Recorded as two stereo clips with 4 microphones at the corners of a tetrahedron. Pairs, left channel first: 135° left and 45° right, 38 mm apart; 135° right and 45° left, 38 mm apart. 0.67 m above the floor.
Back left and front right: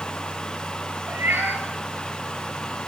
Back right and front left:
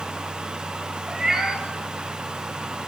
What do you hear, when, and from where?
1.1 s a cat meowing: 30° right, 7.5 m